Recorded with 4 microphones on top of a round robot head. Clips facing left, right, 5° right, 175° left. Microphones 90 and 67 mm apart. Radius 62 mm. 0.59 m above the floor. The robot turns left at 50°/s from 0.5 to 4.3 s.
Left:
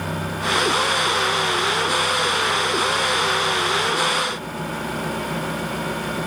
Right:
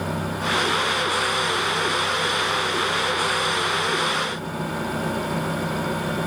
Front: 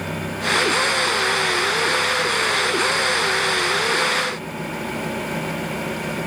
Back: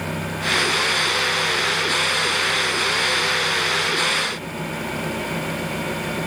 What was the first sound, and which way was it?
Only background noise.